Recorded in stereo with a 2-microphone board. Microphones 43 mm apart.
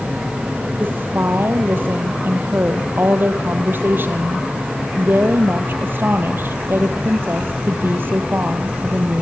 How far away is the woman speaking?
About 3 m.